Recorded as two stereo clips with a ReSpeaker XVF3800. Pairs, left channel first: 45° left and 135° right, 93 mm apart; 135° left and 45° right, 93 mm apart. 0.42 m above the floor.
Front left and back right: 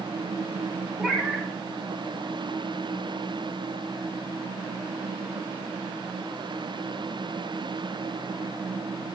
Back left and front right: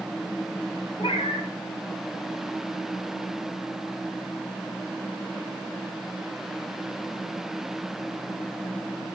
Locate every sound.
1.0 s a cat meowing: 140° left, 1.3 m